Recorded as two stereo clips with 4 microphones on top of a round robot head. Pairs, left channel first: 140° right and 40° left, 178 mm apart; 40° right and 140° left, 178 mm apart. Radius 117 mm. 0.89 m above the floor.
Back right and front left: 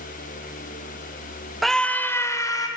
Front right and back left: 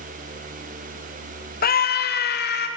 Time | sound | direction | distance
1.6 | a scream | 45° right | 0.8 m